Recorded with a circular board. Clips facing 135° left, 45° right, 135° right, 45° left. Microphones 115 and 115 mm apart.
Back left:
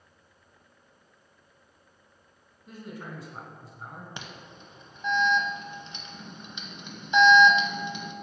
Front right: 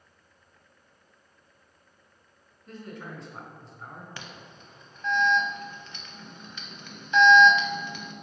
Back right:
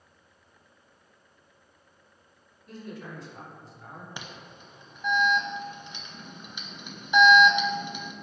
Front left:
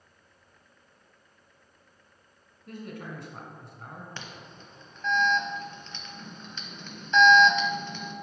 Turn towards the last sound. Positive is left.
turn(degrees=170)